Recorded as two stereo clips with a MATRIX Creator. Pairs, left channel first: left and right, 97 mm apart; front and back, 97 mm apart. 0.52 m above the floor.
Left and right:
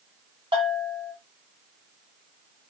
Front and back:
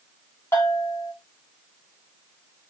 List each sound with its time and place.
0.5 s a bell: 65° right, 2.5 m